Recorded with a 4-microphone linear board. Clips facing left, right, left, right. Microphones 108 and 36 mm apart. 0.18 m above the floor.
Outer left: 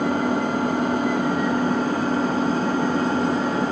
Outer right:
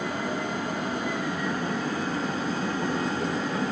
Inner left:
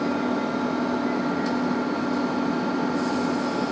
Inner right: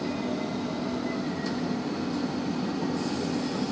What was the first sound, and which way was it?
An engine running, 50° left (ahead or behind).